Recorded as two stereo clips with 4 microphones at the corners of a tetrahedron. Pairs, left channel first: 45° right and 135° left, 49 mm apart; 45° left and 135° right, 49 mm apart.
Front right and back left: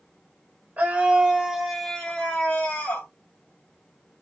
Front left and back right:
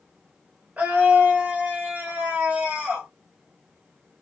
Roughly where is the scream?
Behind.